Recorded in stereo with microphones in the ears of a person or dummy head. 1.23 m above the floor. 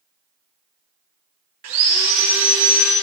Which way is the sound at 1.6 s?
35° right (ahead or behind).